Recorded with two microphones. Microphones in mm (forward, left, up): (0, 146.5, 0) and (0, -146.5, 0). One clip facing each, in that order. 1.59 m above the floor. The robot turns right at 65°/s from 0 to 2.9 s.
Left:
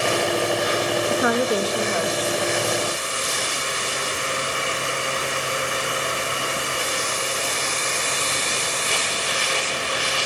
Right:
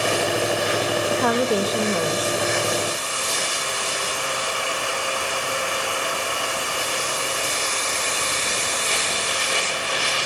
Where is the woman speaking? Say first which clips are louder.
Right 1 dB; 160° left, 2.0 m; by 2.4 s 115° right, 2.0 m.